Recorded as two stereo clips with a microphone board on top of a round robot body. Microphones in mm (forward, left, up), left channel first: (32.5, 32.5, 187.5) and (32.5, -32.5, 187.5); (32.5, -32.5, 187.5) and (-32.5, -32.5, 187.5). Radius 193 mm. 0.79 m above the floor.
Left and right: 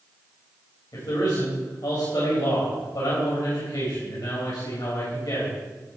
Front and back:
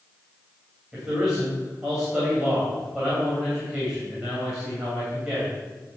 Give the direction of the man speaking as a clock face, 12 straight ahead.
9 o'clock.